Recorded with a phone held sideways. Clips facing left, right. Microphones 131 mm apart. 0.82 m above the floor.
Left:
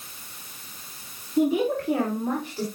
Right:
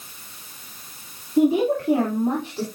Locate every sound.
1.4 s a woman speaking: 30° right (ahead or behind), 2.5 m; by 2.6 s 25° right (ahead or behind), 3 m